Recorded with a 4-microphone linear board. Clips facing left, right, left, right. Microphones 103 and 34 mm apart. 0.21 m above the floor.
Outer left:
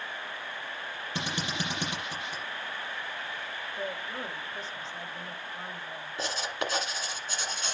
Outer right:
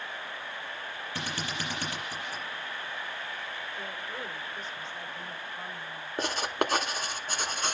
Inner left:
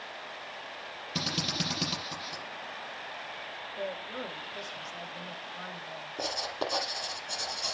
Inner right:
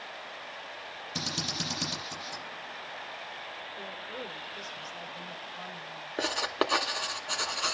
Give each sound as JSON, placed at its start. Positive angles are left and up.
{"t": 1.1, "sound": "a drill", "side_deg": 20, "distance_m": 6.5}
{"t": 3.8, "sound": "a woman speaking", "side_deg": 35, "distance_m": 9.5}
{"t": 6.2, "sound": "writing", "side_deg": -55, "distance_m": 1.5}